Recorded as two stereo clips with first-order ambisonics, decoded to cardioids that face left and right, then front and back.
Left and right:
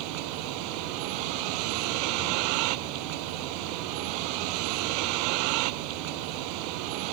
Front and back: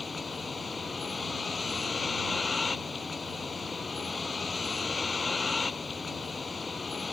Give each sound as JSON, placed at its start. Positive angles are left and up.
{"t": 0.0, "sound": "a vehicle", "azimuth_deg": -75}